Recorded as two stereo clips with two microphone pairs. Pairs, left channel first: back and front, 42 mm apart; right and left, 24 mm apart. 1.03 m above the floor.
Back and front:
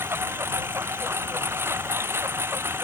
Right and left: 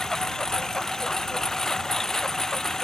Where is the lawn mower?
15° right.